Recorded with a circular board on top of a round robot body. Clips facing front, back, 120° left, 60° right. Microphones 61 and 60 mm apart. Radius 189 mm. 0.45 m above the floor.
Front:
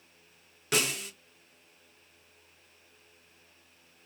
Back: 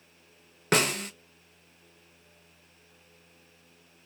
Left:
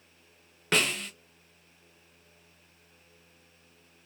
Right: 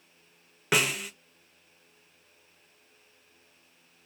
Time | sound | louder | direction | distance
0.7 | a snare drum | back 5 dB, right 1 dB | 140° right | 0.9 m